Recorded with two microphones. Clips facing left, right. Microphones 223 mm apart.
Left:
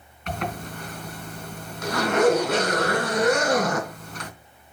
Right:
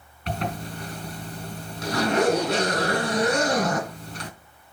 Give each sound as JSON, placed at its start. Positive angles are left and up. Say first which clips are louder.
{"t": 0.3, "sound": "a zipper", "louder": "right 1 dB", "side_deg": -40, "distance_m": 2.5}